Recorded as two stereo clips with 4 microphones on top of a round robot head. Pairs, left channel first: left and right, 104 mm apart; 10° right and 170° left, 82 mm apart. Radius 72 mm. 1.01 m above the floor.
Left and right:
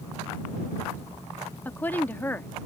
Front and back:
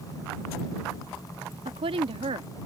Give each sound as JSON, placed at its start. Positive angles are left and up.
{"t": 1.6, "sound": "a woman speaking", "azimuth_deg": 165}